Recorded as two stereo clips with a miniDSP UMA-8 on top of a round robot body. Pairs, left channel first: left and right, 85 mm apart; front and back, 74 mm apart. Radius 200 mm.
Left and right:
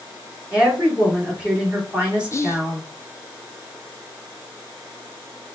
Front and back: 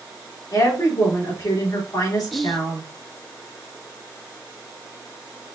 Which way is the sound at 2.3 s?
90° left.